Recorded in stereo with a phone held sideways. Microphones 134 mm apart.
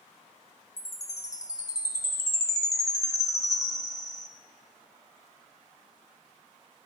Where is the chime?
25° left (ahead or behind), 1.1 m.